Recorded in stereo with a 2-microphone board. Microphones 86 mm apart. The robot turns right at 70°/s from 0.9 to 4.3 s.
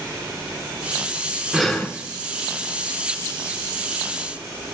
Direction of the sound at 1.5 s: 5° right (ahead or behind).